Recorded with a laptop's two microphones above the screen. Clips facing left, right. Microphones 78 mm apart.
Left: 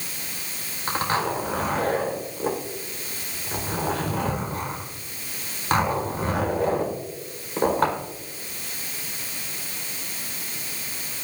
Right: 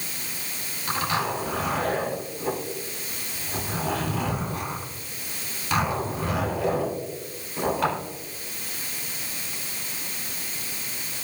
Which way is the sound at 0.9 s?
40° left (ahead or behind).